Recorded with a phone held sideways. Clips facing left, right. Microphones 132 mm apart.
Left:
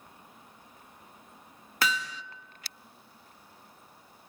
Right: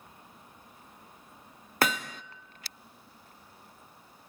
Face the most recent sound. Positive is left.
turn(degrees=-50)  # may be behind; listen again after turning